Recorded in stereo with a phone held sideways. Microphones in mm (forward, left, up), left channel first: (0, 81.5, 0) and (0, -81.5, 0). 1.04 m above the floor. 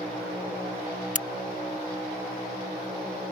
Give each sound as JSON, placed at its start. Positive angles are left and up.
{"t": 1.1, "sound": "a crack", "side_deg": 55}